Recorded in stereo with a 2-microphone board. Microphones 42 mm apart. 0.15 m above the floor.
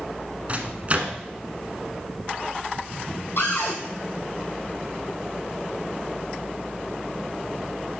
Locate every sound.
0.5 s a microwave: 35° right (ahead or behind), 1.1 m
3.4 s a cupboard door: 60° left (ahead or behind), 2.5 m